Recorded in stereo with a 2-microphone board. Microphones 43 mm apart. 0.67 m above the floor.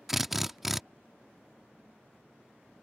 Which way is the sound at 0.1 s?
5° right (ahead or behind).